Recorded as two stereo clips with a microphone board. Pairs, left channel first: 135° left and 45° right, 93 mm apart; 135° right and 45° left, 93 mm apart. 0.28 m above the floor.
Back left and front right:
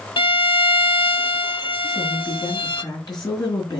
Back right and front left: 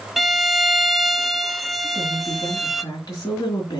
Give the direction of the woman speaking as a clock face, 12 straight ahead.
6 o'clock.